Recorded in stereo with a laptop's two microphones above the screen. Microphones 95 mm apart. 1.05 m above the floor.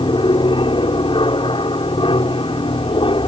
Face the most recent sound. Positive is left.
turn(degrees=65)  # may be behind; listen again after turning